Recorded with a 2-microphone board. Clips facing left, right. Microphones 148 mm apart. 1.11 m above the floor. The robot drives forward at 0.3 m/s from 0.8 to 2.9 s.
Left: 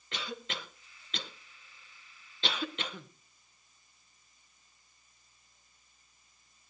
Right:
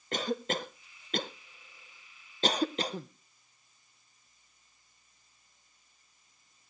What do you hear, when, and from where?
0.1 s a cough: 45° right (ahead or behind), 0.6 m; by 3.1 s 35° right (ahead or behind), 0.7 m